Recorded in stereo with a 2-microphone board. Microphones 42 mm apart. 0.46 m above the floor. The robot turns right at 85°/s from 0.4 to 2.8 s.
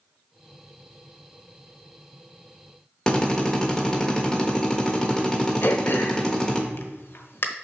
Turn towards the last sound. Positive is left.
turn(degrees=65)  # may be behind; listen again after turning